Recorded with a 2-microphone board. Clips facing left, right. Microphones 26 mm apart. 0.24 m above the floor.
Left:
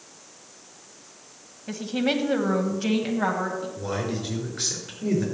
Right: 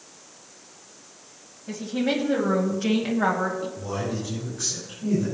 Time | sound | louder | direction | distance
1.7 | a woman speaking | even | 25° left (ahead or behind) | 1.5 m
3.8 | a man speaking | left 1 dB | 70° left (ahead or behind) | 4.5 m